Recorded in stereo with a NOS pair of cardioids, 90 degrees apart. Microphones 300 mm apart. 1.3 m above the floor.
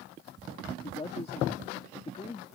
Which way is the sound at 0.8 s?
20° left.